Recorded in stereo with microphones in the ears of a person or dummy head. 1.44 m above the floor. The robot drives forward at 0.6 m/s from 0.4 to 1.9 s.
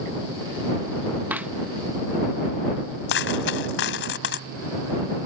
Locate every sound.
1.3 s a clap: 5° right (ahead or behind)
3.1 s a dropped coin: 70° left (ahead or behind)